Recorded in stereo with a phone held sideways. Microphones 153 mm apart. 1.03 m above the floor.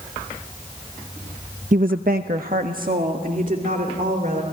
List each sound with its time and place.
1.7 s a woman speaking: 55° right (ahead or behind), 0.6 m; by 4.4 s 60° right (ahead or behind), 3.5 m